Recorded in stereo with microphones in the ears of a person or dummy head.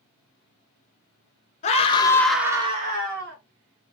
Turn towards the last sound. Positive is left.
turn(degrees=-50)  # may be behind; listen again after turning